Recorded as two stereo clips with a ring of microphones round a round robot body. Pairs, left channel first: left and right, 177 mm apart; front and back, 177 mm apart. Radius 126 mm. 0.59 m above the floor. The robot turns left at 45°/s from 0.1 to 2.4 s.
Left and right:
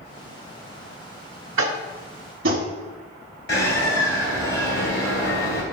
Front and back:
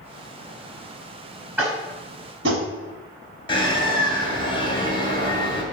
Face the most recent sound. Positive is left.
turn(degrees=65)